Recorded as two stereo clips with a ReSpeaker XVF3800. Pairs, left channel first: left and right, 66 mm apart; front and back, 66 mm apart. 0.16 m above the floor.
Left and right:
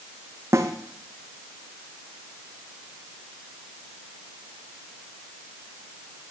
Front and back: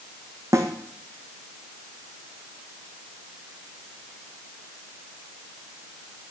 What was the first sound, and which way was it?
A snare drum, 135° right.